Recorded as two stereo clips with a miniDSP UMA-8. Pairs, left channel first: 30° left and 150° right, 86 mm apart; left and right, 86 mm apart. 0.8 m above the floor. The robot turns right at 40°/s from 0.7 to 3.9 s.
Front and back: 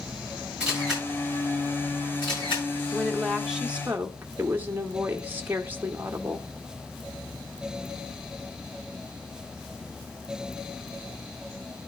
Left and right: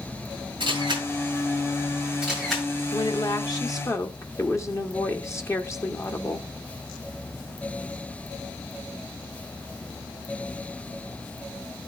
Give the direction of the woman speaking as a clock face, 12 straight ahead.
9 o'clock.